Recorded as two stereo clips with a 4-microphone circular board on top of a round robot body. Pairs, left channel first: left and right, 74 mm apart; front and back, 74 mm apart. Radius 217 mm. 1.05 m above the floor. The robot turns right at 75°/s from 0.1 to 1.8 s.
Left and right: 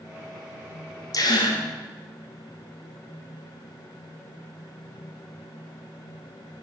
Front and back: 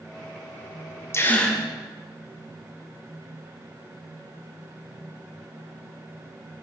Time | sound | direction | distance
1.1 | a gasp | 55° left | 1.7 m